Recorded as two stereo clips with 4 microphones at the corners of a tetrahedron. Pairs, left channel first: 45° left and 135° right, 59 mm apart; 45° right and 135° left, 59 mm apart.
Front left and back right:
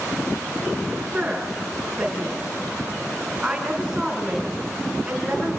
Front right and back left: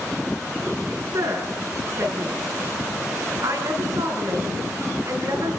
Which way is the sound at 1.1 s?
145° left.